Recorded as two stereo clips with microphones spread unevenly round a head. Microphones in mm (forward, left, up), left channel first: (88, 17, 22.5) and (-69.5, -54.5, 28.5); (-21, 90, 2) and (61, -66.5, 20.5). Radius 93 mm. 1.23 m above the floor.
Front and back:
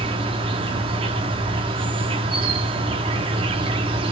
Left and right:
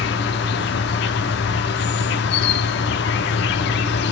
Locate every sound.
0.0 s an insect: 145° left, 1.1 m